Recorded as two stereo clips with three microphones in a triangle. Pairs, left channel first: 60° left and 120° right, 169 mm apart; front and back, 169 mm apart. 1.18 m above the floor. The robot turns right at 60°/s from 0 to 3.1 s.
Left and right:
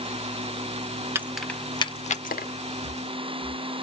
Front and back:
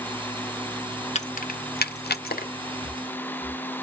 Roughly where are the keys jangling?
Ahead right.